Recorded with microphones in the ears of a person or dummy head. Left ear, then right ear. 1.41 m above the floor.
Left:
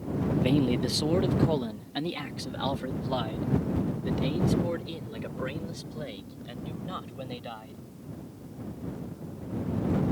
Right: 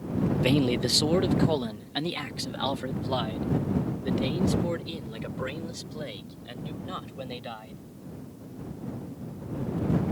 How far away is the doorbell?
I don't hear a doorbell.